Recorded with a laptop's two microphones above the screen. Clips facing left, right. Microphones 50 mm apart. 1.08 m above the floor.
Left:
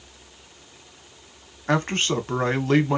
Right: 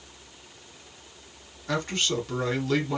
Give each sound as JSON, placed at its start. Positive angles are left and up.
{"t": 1.7, "sound": "a man speaking", "side_deg": 45, "distance_m": 0.8}